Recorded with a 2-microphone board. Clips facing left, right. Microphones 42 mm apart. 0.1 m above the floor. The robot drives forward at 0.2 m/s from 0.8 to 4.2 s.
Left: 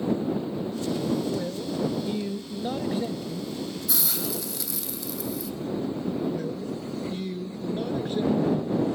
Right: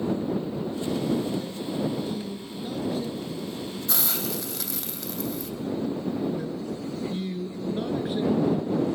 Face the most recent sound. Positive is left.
turn(degrees=-10)  # may be behind; listen again after turning